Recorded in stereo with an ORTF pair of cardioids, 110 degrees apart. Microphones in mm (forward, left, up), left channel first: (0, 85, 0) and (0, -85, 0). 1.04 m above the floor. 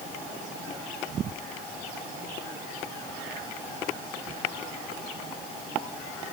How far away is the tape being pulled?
I don't hear tape being pulled.